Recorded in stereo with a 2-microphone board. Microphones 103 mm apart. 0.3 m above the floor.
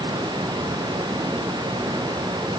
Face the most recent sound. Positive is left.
No sound to turn to.